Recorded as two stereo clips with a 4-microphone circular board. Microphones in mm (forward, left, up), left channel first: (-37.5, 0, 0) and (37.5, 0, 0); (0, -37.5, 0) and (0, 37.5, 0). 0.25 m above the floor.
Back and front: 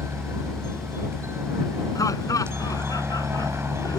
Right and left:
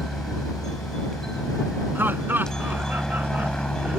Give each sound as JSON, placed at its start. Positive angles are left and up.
{"t": 0.0, "sound": "a helicopter", "azimuth_deg": -10}
{"t": 1.9, "sound": "laughter", "azimuth_deg": 150}